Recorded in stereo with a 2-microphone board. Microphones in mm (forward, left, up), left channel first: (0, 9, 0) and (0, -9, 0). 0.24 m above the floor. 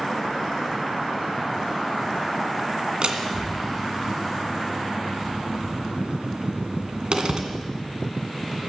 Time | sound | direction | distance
3.0 | a door slam | 60° right (ahead or behind) | 2.0 m